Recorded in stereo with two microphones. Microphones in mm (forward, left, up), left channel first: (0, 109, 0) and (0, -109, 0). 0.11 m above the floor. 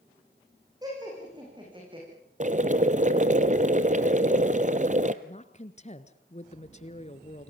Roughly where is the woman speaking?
Left.